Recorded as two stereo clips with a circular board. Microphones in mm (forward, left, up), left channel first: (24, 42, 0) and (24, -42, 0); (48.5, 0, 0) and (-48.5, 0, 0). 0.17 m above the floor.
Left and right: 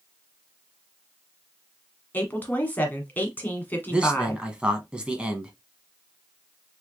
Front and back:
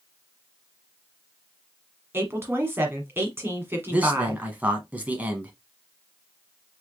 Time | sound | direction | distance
2.1 | a woman speaking | 135° left | 1.3 m
3.9 | a man speaking | 140° right | 1.1 m